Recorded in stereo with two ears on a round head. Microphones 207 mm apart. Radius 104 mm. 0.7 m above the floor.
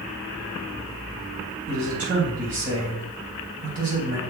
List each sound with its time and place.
1.7 s a man speaking: 35° right (ahead or behind), 3.5 m